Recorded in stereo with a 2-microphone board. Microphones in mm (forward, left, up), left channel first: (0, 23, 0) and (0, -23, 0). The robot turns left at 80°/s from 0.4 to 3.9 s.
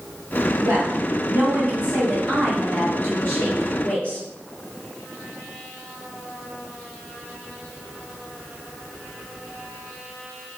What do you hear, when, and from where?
0.6 s a woman speaking: 65° right, 1.7 m; by 4.2 s 30° left, 1.7 m